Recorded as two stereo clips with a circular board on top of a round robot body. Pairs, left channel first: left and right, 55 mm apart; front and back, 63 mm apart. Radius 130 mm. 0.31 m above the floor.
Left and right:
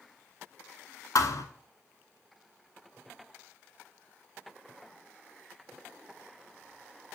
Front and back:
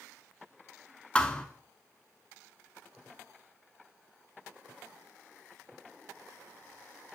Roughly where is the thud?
Left.